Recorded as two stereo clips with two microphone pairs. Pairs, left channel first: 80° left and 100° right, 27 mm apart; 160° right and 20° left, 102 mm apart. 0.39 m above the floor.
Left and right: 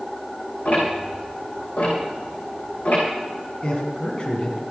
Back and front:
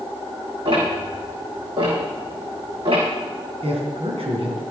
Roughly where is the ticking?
Ahead left.